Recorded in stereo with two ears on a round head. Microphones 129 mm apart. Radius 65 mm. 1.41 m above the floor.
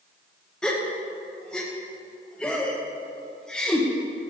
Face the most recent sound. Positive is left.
turn(degrees=5)  # may be behind; listen again after turning